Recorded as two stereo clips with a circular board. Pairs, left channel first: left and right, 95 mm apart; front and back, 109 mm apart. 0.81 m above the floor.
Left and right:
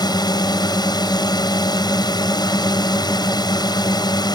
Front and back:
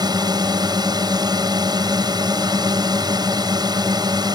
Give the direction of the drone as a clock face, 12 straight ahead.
8 o'clock.